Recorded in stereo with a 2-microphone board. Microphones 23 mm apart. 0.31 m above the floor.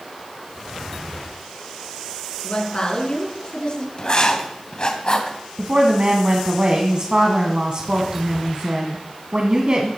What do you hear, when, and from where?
2.4 s a woman speaking: 40° left (ahead or behind), 4 m
4.0 s writing: 35° left (ahead or behind), 2 m
5.6 s a woman speaking: 50° right (ahead or behind), 2 m